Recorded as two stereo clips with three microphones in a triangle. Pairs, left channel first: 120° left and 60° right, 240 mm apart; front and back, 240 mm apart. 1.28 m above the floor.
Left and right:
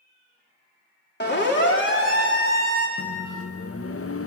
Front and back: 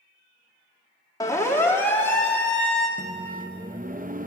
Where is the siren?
75° left, 3.5 m; by 2.9 s 85° left, 5 m.